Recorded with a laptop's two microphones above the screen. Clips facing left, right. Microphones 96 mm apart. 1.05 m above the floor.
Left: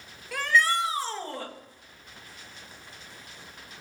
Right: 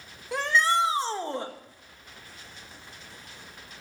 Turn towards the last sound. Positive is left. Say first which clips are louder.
# right 1 dB
turn(degrees=-25)  # may be behind; listen again after turning